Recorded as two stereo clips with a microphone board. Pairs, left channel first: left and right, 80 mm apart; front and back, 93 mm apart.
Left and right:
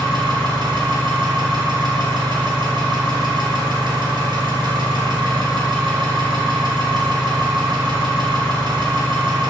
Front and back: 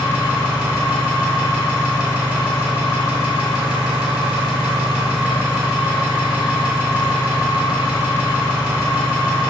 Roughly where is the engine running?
Right.